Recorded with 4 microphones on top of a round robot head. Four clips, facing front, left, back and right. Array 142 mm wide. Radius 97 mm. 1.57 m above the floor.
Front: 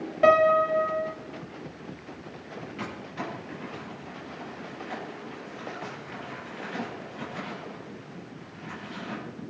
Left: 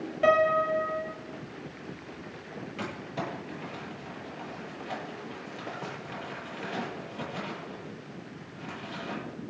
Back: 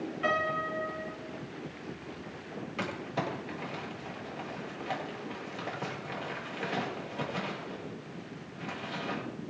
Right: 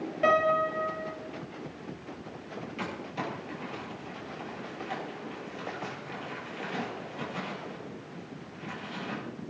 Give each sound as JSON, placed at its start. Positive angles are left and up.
{"t": 0.2, "sound": "a piano", "azimuth_deg": 5, "distance_m": 1.6}
{"t": 2.8, "sound": "crumpling", "azimuth_deg": 170, "distance_m": 8.0}